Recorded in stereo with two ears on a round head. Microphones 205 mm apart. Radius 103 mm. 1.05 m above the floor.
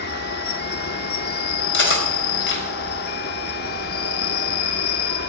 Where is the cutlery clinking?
55° left (ahead or behind), 4 m.